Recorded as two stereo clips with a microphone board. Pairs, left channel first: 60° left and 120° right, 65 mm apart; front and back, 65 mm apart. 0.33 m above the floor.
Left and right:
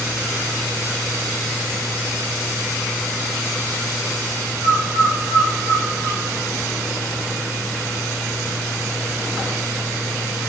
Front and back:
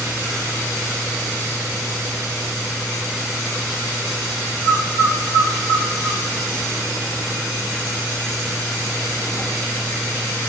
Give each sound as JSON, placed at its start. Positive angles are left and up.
{"t": 4.6, "sound": "a bird", "azimuth_deg": 85, "distance_m": 8.0}